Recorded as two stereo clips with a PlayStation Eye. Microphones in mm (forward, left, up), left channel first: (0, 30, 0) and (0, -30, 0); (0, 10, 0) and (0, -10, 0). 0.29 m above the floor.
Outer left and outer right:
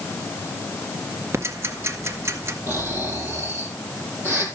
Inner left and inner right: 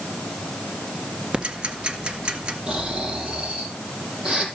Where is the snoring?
35° right (ahead or behind), 5 m.